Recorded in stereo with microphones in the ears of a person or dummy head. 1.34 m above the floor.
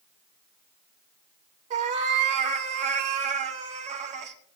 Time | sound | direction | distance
1.7 | a cat meowing | 40° right (ahead or behind) | 0.8 m